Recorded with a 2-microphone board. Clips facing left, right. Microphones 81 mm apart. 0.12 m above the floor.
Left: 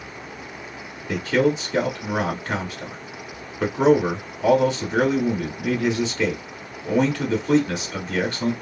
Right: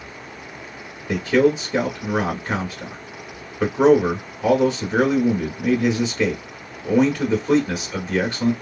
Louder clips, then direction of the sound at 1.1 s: Right 3 dB; 15° right (ahead or behind).